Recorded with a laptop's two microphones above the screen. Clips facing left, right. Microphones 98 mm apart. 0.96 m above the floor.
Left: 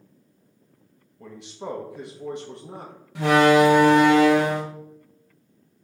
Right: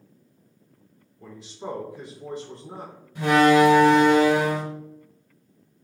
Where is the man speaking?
70° left (ahead or behind), 1.0 m.